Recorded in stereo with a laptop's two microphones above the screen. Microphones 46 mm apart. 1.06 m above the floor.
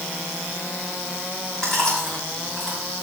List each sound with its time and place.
1.6 s chewing: 15° left (ahead or behind), 5.5 m